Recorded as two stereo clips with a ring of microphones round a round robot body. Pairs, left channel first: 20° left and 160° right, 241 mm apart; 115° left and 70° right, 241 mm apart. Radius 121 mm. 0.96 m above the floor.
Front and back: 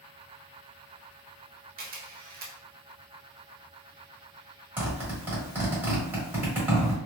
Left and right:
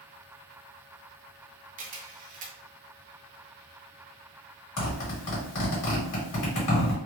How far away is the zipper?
About 1.6 m.